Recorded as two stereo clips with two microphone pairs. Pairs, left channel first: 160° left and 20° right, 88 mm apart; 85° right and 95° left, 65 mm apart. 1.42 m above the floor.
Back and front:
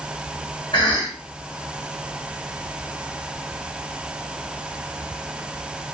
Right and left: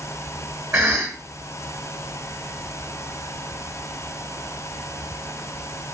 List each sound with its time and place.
0.7 s a cough: 135° left, 1.1 m